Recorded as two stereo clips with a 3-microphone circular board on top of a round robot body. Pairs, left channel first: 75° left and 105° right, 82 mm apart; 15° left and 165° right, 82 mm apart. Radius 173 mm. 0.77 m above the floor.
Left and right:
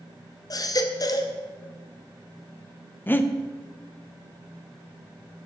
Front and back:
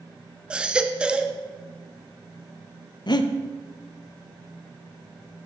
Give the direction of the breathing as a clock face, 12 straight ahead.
12 o'clock.